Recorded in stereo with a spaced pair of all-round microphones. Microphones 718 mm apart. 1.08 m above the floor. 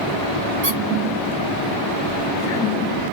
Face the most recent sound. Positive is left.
turn(degrees=-45)  # may be behind; listen again after turning